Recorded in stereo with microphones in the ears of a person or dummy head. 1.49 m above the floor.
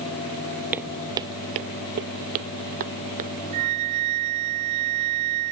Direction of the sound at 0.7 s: 10° right (ahead or behind).